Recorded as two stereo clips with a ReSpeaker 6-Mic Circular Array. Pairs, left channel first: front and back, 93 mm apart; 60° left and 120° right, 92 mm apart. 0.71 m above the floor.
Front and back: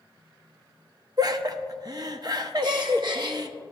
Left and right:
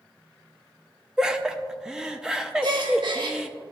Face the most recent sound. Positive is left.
turn(degrees=-150)